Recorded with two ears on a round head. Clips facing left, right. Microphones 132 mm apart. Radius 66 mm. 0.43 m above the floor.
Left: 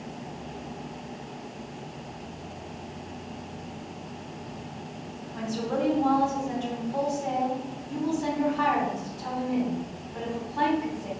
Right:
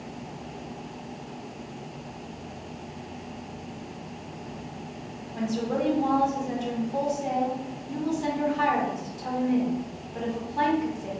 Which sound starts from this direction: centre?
A woman speaking, at 5.3 s.